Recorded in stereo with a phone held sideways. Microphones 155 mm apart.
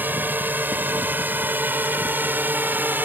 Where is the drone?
10° right (ahead or behind); by 3.1 s 15° right (ahead or behind).